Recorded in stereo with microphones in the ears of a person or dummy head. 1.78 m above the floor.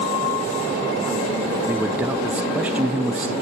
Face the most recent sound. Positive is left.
turn(degrees=-15)  # may be behind; listen again after turning